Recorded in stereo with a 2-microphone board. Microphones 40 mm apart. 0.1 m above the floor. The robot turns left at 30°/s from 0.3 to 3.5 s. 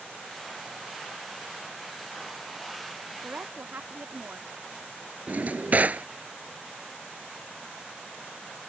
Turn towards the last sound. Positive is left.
turn(degrees=-45)  # may be behind; listen again after turning